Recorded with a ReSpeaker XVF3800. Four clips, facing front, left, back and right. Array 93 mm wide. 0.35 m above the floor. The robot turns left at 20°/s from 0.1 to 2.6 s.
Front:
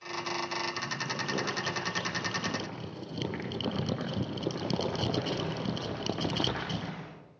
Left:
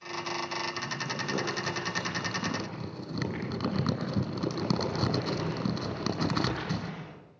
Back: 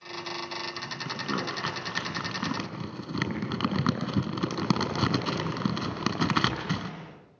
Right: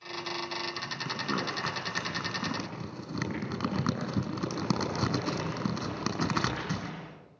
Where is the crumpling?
135° right, 5 m; by 6.9 s 165° right, 5 m.